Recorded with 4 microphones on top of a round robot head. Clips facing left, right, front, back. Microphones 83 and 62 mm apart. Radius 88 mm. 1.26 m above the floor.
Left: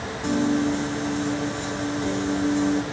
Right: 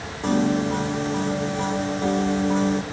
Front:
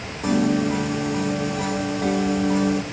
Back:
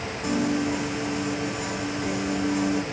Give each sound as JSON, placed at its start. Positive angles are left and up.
{"t": 0.2, "sound": "a piano", "azimuth_deg": -45, "distance_m": 1.6}